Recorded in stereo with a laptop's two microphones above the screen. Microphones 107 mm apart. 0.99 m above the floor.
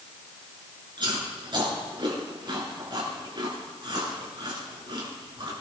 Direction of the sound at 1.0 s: 50° right (ahead or behind).